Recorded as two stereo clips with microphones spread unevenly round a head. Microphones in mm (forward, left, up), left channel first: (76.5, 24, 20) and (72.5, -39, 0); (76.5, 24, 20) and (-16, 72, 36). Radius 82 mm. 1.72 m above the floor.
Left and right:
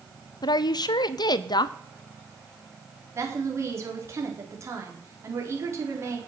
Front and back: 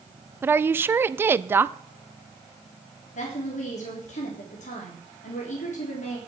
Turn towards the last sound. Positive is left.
turn(degrees=-50)